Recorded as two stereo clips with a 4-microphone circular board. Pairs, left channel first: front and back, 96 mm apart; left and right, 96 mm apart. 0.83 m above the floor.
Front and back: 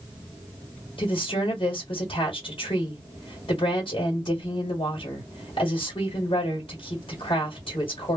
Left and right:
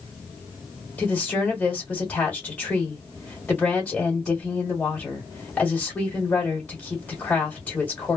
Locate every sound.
1.0 s a woman speaking: 15° left, 1.4 m